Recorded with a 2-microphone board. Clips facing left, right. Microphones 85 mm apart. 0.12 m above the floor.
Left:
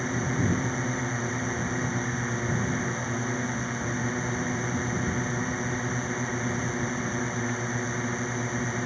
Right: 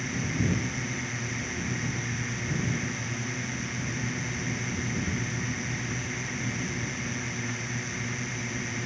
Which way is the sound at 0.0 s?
35° left (ahead or behind).